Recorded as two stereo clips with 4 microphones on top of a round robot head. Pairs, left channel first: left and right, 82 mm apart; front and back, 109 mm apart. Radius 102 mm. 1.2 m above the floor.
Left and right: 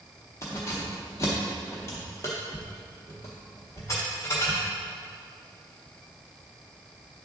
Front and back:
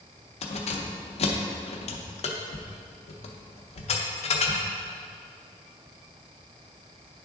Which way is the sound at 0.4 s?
25° left.